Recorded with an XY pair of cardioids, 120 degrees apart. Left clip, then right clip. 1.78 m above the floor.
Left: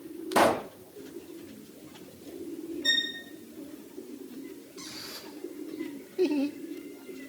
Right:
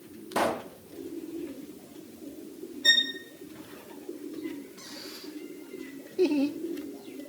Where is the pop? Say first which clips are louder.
Left 5 dB; 30° left, 0.6 m.